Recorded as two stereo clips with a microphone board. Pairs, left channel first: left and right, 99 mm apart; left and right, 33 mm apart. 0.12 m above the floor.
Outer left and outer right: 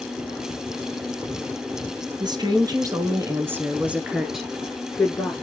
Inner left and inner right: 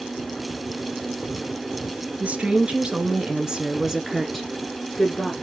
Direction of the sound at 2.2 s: 45° right (ahead or behind).